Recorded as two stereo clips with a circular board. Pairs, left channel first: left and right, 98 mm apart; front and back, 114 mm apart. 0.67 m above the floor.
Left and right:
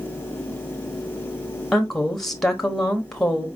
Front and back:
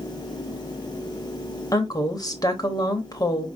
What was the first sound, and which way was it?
A woman speaking, 10° left.